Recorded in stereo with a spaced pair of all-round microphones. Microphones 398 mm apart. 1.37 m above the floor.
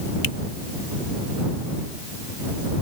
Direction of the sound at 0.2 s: 55° left (ahead or behind).